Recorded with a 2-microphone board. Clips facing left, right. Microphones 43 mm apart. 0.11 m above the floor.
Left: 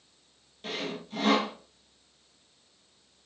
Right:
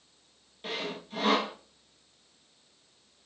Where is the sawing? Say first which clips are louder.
Left 1 dB; 5° right (ahead or behind), 1.2 m.